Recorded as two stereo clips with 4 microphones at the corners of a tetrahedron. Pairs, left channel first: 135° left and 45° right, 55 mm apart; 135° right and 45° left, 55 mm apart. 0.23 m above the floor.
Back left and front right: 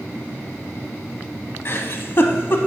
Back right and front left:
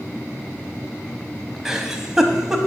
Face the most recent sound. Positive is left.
turn(degrees=125)